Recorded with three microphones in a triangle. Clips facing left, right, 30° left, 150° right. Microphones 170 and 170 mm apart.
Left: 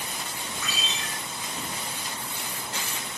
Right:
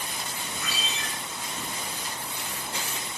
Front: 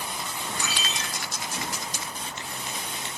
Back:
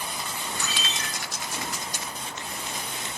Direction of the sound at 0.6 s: 55° right.